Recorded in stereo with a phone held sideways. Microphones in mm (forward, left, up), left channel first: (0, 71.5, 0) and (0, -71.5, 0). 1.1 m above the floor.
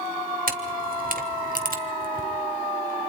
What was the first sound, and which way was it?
A camera shutter, 70° right (ahead or behind).